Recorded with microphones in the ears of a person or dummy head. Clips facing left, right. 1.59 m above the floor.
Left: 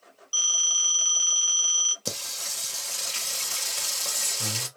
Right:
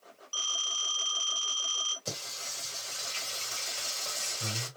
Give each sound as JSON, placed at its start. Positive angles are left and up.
{"t": 0.3, "sound": "a phone ringing", "side_deg": 35, "distance_m": 0.9}
{"t": 2.0, "sound": "singing", "side_deg": 65, "distance_m": 1.0}